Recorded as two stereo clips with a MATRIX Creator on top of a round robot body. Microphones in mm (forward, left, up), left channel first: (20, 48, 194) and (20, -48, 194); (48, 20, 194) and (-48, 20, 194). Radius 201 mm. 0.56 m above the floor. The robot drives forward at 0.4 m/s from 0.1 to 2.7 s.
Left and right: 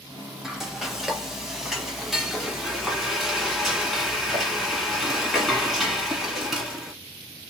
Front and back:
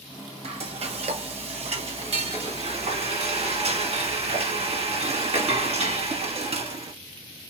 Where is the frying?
175° right, 0.8 m; by 6.9 s straight behind, 1.7 m.